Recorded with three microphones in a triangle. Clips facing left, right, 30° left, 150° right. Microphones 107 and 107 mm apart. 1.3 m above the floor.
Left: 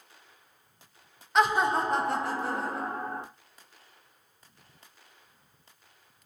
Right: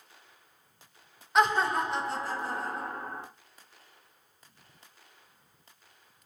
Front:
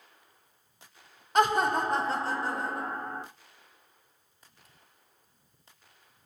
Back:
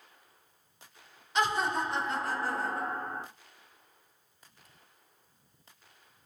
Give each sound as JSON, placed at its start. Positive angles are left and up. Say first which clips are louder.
{"t": 1.4, "sound": "laughter", "louder": "left 1 dB, front 5 dB", "azimuth_deg": -5, "distance_m": 0.6}